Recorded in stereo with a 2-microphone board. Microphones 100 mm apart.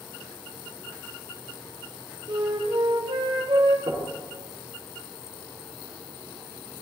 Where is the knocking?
55° right (ahead or behind), 5 m.